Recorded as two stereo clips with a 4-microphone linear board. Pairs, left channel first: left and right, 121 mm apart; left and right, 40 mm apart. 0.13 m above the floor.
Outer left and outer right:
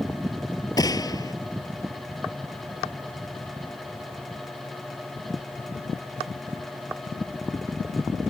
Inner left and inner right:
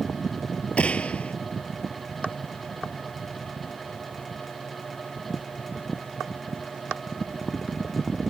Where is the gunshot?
30° left (ahead or behind).